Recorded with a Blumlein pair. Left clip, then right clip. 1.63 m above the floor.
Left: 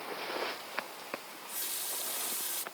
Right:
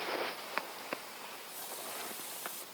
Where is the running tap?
25° left.